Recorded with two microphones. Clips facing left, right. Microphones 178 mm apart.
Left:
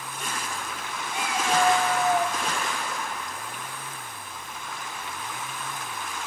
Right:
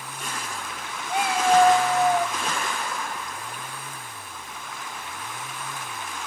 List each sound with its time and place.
1.1 s a cat meowing: 70° right (ahead or behind), 1.5 m; by 2.4 s 10° left (ahead or behind), 0.9 m